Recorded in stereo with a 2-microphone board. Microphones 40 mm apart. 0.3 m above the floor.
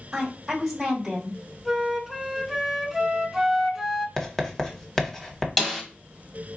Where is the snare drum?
5° left (ahead or behind), 1.1 m.